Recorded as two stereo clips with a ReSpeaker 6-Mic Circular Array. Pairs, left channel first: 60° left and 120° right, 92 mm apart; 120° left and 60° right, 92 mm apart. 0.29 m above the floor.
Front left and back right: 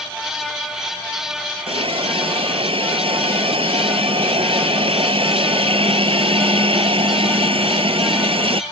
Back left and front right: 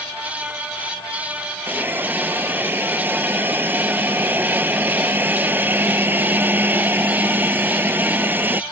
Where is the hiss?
130° right.